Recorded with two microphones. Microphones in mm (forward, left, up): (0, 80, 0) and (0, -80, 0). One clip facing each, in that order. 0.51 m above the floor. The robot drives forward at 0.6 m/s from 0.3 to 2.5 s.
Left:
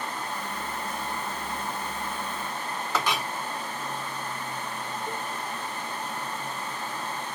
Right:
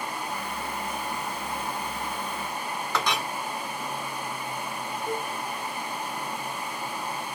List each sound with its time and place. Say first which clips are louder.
2.9 s a clink: even; 5° left (ahead or behind), 0.8 m
5.1 s a cowbell: right 7 dB; 15° right (ahead or behind), 1.4 m